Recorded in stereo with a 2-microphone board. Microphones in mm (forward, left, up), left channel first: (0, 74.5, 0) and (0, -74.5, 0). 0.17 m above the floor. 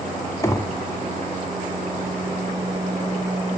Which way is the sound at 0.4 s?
20° left (ahead or behind).